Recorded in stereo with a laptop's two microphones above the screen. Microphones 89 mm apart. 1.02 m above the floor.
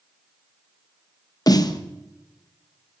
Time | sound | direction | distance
1.5 | a snare drum | 50° left (ahead or behind) | 1.0 m